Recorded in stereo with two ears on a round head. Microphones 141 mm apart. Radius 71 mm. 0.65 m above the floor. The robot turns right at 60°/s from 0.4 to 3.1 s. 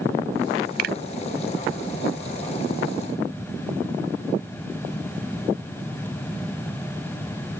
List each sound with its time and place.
0.8 s a finger snap: 65° right (ahead or behind); by 1.0 s 75° right (ahead or behind)